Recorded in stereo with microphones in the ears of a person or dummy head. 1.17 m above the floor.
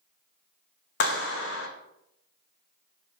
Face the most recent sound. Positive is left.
turn(degrees=65)  # may be behind; listen again after turning